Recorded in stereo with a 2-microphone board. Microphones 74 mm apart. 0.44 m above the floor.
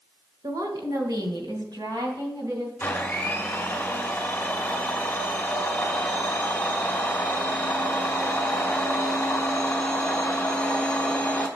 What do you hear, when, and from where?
0.4 s a woman speaking: 55° right (ahead or behind), 1.5 m; by 2.7 s 70° right (ahead or behind), 3.5 m
2.8 s a blender: 25° left (ahead or behind), 1.6 m